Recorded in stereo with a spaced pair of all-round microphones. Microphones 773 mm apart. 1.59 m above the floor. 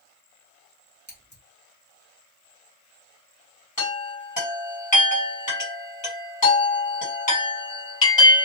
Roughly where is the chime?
Left.